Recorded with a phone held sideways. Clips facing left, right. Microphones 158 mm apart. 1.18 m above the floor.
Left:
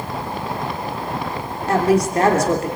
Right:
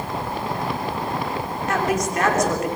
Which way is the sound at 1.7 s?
35° left (ahead or behind).